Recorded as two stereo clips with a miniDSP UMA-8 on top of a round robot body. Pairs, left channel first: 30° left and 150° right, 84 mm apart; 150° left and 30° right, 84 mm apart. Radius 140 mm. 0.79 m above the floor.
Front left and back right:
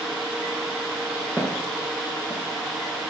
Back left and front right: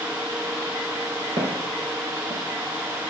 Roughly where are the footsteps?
Ahead right.